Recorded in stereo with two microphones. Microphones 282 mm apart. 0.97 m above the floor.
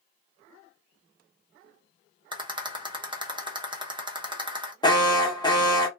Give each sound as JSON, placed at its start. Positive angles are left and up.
{"t": 2.3, "sound": "a rattle", "side_deg": -15, "distance_m": 0.7}
{"t": 4.8, "sound": "an alarm", "side_deg": 15, "distance_m": 0.9}